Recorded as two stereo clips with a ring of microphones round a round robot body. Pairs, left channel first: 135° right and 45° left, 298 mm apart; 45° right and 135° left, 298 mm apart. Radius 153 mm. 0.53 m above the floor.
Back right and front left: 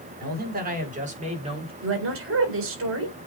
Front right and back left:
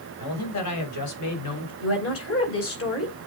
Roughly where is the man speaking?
Ahead.